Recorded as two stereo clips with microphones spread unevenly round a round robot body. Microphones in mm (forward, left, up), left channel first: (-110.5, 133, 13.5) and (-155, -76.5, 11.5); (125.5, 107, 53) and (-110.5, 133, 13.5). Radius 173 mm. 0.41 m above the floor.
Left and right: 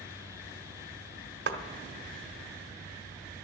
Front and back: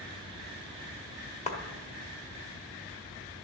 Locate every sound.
1.5 s a clap: 75° right, 0.9 m